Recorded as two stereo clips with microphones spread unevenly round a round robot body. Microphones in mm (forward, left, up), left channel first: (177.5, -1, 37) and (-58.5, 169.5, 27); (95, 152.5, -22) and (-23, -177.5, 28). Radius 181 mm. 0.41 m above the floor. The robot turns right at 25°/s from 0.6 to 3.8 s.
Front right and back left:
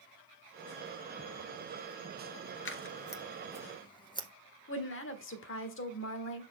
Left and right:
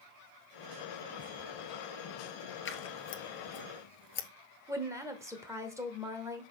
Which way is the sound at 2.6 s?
10° left.